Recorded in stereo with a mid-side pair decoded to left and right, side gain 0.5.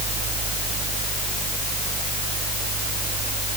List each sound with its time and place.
0.0 s a fan: 55° right